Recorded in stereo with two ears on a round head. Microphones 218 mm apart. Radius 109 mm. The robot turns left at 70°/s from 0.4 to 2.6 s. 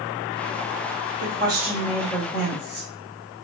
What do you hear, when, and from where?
1.2 s a woman speaking: 140° right, 1.4 m; by 2.9 s 125° left, 1.4 m